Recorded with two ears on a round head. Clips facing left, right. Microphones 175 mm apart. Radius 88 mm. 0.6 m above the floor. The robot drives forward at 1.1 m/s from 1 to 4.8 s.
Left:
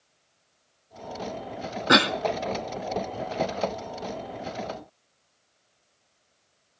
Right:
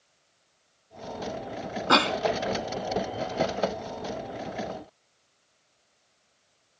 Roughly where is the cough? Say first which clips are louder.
Left 2 dB; centre.